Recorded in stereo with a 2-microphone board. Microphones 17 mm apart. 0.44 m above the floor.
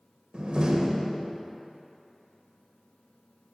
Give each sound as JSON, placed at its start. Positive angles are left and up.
{"t": 0.3, "sound": "a door slam", "side_deg": -55, "distance_m": 1.1}